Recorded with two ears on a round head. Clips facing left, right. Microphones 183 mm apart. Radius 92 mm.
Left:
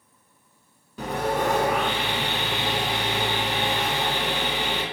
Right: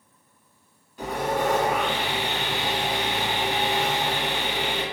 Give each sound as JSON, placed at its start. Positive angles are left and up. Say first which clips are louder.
{"t": 1.0, "sound": "sawing", "louder": "even", "side_deg": 65, "distance_m": 1.1}